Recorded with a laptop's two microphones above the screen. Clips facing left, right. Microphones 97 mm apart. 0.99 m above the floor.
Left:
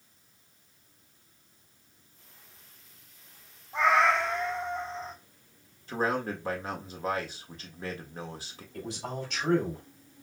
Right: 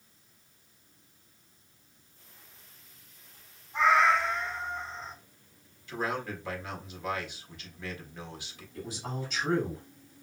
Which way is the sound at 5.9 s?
40° left (ahead or behind).